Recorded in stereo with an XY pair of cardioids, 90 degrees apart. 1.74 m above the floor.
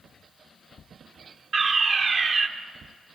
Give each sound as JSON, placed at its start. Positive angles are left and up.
{"t": 1.5, "sound": "a fire alarm", "azimuth_deg": -55, "distance_m": 1.5}